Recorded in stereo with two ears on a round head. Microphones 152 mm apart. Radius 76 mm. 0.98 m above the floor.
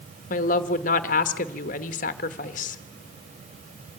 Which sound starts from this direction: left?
A woman speaking, at 0.3 s.